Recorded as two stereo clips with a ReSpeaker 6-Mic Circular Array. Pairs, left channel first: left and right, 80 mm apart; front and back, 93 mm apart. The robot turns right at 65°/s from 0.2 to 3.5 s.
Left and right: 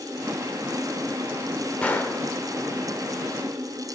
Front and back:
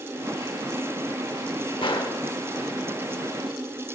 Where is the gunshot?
15° left, 0.8 m; by 2.2 s 40° left, 0.8 m.